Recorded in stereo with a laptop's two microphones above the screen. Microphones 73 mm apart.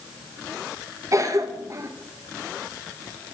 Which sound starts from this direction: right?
A cough, at 1.1 s.